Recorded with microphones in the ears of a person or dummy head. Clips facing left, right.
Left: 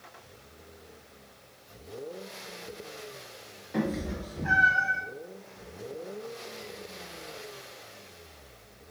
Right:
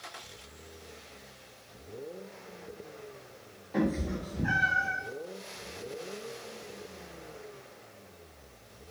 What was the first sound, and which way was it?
A cat meowing, 10° left (ahead or behind).